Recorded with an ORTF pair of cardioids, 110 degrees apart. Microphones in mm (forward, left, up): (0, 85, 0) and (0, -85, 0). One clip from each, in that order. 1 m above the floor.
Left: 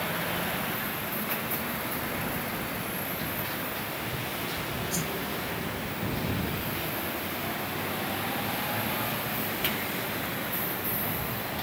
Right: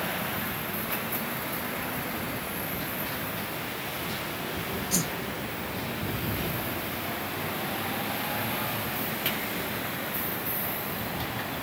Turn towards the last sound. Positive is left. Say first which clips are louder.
# right 5 dB
turn(degrees=-35)